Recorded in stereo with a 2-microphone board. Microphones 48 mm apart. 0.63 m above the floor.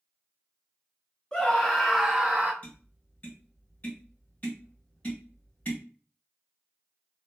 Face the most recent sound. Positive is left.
turn(degrees=35)  # may be behind; listen again after turning